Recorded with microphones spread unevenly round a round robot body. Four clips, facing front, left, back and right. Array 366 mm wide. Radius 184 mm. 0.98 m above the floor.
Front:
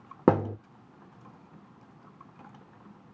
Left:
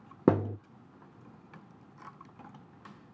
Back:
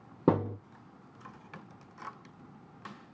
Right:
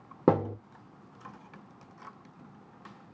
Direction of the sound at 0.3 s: 50° right.